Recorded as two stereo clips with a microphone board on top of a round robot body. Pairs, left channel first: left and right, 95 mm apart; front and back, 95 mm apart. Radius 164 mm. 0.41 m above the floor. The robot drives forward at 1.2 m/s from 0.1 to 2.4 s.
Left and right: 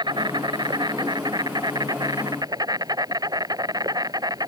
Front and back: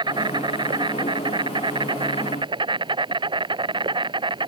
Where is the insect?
135° right; by 4.5 s 140° right.